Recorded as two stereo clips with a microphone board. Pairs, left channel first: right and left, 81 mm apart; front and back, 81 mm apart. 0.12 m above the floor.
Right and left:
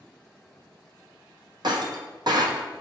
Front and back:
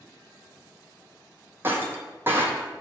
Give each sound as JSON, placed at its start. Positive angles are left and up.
{"t": 1.6, "sound": "breaking glass", "azimuth_deg": 115, "distance_m": 0.7}